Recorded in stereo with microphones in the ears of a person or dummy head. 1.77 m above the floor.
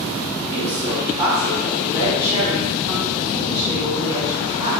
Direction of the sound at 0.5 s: 30° right (ahead or behind).